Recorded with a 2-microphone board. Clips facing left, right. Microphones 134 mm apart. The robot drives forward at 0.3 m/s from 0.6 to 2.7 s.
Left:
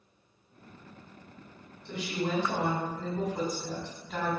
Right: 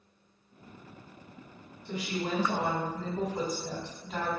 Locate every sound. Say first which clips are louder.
1.9 s a woman speaking: left 1 dB; 5° right (ahead or behind), 1.5 m